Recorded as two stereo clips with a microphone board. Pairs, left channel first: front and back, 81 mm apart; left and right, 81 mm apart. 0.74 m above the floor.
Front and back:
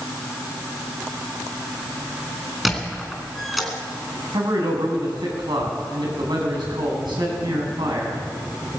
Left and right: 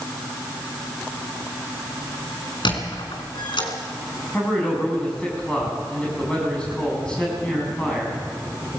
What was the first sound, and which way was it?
A squeak, 90° left.